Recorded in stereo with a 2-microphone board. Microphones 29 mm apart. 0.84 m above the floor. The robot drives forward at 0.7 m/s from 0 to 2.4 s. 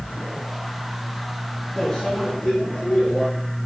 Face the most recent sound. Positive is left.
turn(degrees=25)  # may be behind; listen again after turning